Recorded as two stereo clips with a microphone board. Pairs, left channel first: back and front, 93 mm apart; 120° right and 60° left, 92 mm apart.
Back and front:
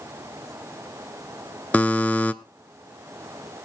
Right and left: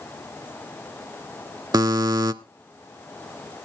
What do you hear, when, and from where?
1.7 s a buzzer: 105° left, 0.5 m